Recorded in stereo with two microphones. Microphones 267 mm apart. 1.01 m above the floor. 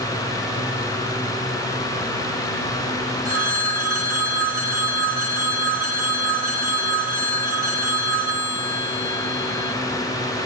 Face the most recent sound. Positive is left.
turn(degrees=-80)